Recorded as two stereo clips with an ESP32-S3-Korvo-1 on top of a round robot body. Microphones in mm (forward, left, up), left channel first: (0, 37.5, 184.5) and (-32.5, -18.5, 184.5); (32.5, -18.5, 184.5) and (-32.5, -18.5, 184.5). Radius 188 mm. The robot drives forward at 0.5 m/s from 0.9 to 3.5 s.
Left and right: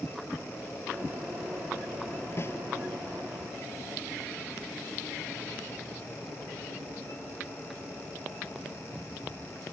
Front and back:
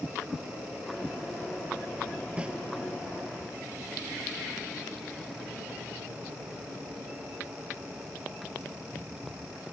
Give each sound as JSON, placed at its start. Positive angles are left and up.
{"t": 2.4, "sound": "a snare drum", "azimuth_deg": 110}